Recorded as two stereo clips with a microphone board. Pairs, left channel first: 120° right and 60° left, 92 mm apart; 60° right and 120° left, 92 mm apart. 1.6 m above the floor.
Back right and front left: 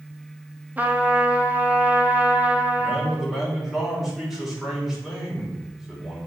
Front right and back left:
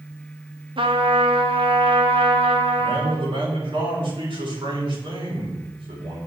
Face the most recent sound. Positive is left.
turn(degrees=145)